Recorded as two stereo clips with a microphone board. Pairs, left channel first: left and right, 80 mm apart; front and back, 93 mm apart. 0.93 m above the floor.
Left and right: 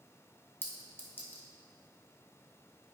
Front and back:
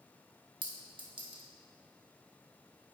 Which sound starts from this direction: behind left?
A clink, at 0.6 s.